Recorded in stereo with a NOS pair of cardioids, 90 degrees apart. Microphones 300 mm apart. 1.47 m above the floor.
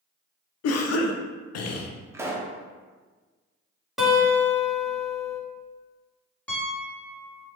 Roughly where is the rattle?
No rattle in this recording.